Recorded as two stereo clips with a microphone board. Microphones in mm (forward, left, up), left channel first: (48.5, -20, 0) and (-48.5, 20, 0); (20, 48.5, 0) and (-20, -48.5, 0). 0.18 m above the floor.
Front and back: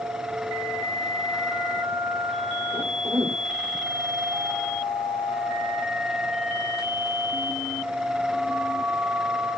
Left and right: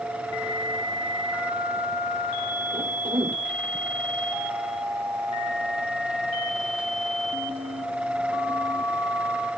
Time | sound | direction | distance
2.7 | a cough | 150° right | ?